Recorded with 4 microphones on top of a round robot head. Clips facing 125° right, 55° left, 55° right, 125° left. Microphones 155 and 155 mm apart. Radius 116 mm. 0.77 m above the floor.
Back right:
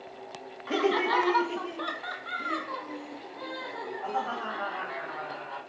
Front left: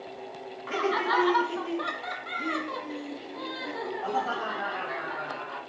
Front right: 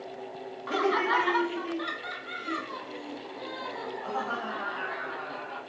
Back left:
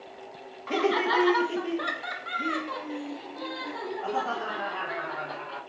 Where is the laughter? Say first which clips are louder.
Back right 2 dB, back left 2 dB; 165° right, 1.1 m; by 5.6 s 105° left, 3.5 m.